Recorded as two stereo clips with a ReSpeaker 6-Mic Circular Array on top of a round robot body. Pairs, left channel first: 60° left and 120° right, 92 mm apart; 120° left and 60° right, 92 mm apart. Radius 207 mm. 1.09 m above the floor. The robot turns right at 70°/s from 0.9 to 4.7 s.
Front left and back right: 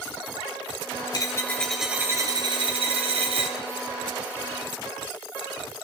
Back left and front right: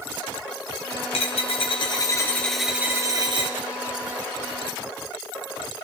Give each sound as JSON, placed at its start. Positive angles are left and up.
{"t": 1.1, "sound": "a dropped coin", "azimuth_deg": 110, "distance_m": 1.3}